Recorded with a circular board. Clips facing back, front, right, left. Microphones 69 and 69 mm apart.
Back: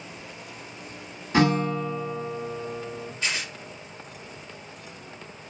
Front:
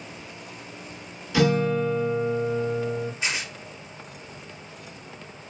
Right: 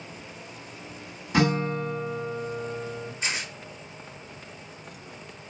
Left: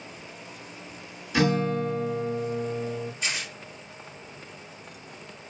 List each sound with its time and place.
1.3 s a guitar: 130° right, 1.9 m
3.2 s tearing paper: 55° right, 1.3 m